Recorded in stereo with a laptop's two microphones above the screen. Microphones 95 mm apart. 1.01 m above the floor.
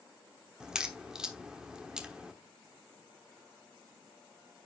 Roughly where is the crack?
Centre.